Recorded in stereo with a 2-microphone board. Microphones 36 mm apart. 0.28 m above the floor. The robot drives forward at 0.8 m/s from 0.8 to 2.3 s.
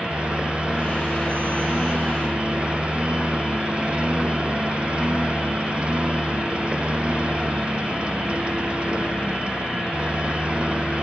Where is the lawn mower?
35° right (ahead or behind).